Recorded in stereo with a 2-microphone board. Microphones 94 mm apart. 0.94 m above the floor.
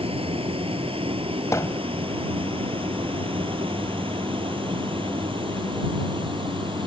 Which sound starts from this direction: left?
Hammering, at 1.5 s.